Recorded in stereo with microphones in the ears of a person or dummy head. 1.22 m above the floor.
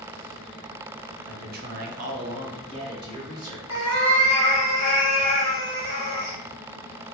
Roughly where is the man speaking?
Right.